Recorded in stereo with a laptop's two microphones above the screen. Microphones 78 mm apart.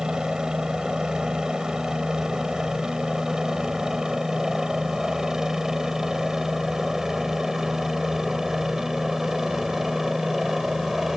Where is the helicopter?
10° right (ahead or behind); by 11.2 s 5° right (ahead or behind).